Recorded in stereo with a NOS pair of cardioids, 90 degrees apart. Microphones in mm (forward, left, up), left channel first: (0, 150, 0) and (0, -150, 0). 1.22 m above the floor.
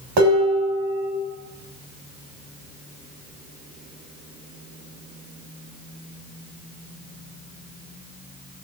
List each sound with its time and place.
0.2 s dishes clattering: 70° right, 2.0 m